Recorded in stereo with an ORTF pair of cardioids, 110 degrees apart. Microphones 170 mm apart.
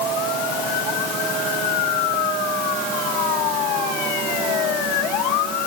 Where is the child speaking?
No child speaking in this recording.